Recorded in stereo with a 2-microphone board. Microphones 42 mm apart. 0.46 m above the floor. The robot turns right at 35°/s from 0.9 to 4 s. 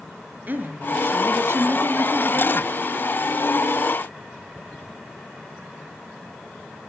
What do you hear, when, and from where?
0.5 s a woman speaking: 135° right, 5.5 m; by 2.7 s 70° right, 5.5 m